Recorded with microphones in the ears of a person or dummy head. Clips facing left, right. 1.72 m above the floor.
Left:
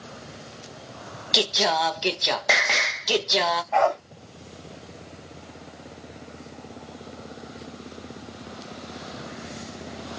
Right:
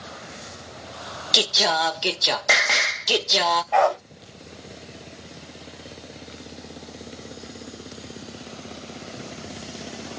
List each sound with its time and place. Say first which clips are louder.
1.3 s singing: even; 5° left (ahead or behind), 0.5 m
3.7 s a dog barking: right 2 dB; 30° right (ahead or behind), 1.6 m